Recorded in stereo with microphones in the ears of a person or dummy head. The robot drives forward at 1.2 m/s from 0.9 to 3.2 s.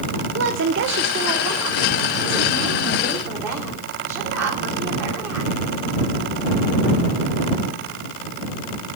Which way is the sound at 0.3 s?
60° right (ahead or behind).